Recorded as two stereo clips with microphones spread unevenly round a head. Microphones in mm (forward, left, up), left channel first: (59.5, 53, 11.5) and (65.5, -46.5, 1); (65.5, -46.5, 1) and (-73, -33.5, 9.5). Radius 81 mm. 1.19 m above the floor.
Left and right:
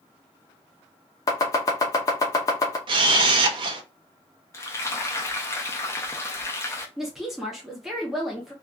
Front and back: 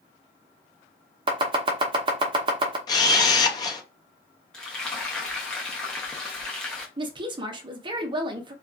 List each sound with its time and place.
1.3 s chopping: 140° left, 0.6 m
2.9 s a camera shutter: 65° right, 0.6 m
4.5 s frying: 65° left, 0.7 m
7.0 s a woman speaking: 165° right, 0.5 m